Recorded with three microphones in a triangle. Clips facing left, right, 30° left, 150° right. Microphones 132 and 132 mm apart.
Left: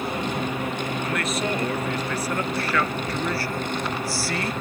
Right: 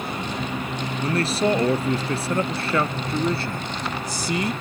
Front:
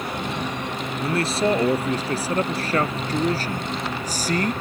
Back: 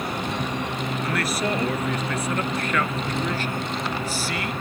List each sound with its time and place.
1.0 s a man speaking: 35° right; by 4.5 s 15° right